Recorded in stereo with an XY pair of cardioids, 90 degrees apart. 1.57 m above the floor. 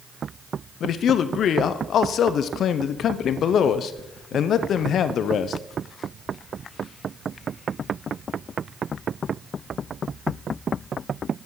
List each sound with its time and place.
0.8 s a man speaking: 70° left, 0.6 m